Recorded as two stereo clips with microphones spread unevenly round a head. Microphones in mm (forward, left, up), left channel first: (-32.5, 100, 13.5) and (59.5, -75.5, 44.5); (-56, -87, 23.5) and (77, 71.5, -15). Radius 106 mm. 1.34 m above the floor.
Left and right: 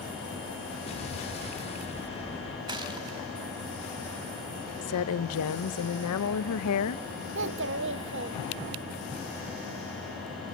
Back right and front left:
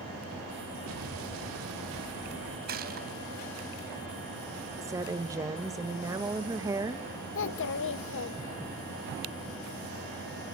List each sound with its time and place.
0.9 s an explosion: 55° left, 3 m
2.7 s a gunshot: 5° left, 3 m
4.8 s a woman speaking: 130° left, 1.0 m
7.3 s a child speaking: 100° right, 0.7 m